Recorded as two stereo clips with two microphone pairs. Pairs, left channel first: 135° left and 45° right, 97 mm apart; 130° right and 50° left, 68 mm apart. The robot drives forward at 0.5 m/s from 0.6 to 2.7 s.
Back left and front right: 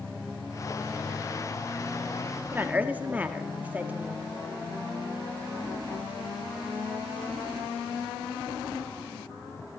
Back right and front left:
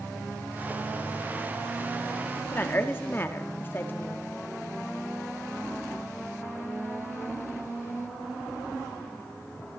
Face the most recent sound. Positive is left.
turn(degrees=-105)